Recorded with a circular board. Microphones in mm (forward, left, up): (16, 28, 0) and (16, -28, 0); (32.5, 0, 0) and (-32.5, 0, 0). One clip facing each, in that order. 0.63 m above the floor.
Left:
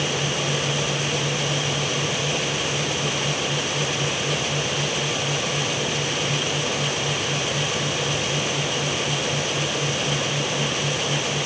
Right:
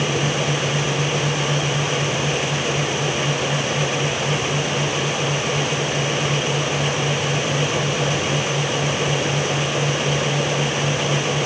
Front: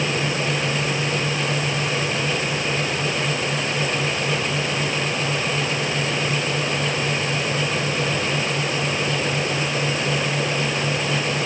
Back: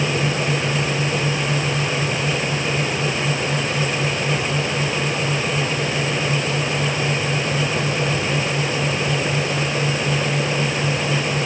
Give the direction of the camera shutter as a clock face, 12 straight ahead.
I don't hear a camera shutter.